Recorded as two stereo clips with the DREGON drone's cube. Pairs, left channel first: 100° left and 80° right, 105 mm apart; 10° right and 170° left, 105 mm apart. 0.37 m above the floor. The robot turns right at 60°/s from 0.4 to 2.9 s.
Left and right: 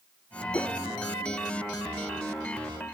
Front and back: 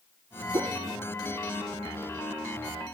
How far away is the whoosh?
About 0.6 m.